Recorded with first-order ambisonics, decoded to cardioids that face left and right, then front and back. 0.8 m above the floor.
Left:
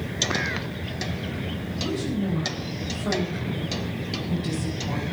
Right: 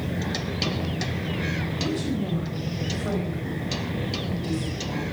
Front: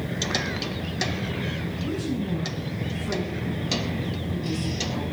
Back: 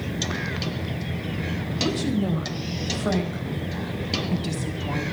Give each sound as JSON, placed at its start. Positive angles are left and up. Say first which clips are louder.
{"t": 1.8, "sound": "a woman speaking", "louder": "left 2 dB, back 7 dB", "azimuth_deg": -175, "distance_m": 4.0}